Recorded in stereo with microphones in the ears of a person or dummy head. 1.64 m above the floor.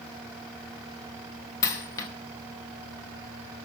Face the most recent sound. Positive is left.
turn(degrees=20)  # may be behind; listen again after turning